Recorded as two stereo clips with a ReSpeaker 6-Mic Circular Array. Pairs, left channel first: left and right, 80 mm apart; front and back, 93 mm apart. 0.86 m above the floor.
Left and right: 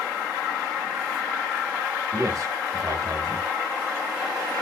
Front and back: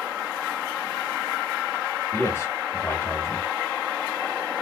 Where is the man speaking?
55° right, 1.5 m.